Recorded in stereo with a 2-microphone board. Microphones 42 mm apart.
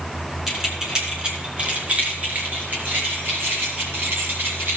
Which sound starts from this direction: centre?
Keys jangling, at 0.5 s.